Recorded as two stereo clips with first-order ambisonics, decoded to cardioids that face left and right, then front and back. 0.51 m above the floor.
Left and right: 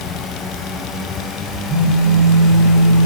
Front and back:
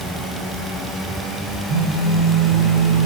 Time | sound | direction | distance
1.7 | a phone buzzing | 170° left | 7.5 m